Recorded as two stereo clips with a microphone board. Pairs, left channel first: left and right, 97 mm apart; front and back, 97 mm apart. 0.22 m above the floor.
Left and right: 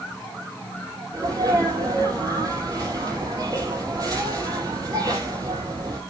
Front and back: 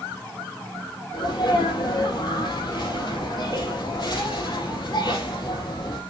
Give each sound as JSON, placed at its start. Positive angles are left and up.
{"t": 1.1, "sound": "a sneeze", "azimuth_deg": -40, "distance_m": 4.0}